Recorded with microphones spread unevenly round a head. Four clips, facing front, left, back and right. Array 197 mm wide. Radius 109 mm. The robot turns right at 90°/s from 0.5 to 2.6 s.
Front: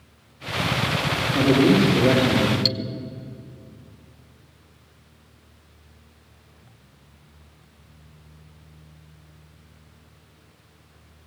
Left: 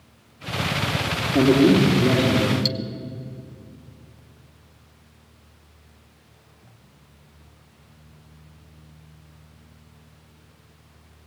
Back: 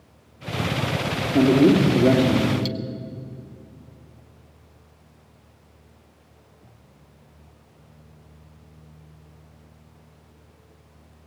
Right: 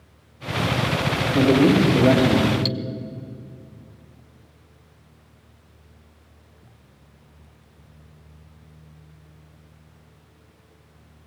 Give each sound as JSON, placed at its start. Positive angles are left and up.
{"t": 1.3, "sound": "a man speaking", "azimuth_deg": 165, "distance_m": 3.5}
{"t": 2.6, "sound": "cutlery clinking", "azimuth_deg": 0, "distance_m": 1.4}